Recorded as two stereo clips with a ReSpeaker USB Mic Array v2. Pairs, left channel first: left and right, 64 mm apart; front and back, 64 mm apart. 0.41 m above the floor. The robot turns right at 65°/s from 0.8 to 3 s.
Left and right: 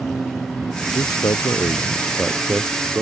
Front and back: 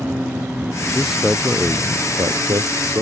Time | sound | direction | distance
0.9 | a man speaking | 80° left | ?